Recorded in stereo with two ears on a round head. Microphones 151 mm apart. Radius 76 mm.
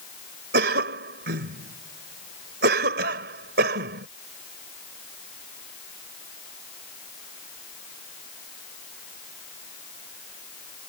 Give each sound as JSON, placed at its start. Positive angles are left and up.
{"t": 0.5, "sound": "a cough", "side_deg": -65}